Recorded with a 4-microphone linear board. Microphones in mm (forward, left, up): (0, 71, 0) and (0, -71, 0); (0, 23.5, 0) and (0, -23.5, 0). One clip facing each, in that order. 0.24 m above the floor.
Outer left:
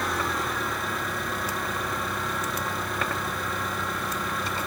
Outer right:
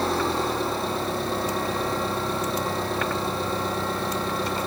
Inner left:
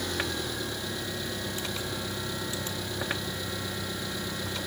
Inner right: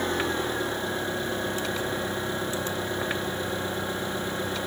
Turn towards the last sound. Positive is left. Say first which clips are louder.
# outer right 5 dB, inner right 5 dB
turn(degrees=-30)  # may be behind; listen again after turning